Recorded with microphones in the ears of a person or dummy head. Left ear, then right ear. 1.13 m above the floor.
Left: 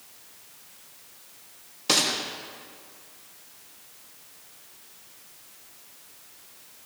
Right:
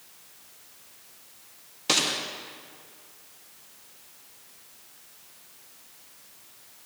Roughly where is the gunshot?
Centre.